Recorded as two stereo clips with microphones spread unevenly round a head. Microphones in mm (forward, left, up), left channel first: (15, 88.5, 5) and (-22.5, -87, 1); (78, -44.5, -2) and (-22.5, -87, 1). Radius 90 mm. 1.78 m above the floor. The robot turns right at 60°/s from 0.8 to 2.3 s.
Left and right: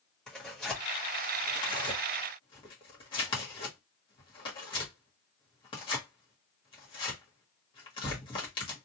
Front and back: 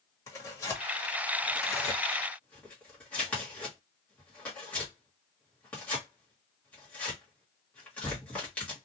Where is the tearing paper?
Straight ahead, 1.3 m; by 8.8 s 90° left, 1.3 m.